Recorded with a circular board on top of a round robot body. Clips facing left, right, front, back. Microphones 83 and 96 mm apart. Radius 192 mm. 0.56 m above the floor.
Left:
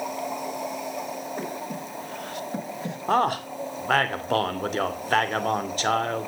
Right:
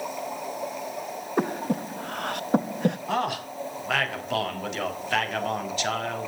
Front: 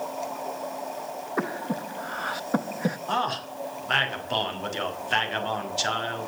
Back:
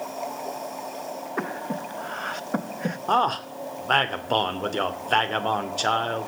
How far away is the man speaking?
About 3 m.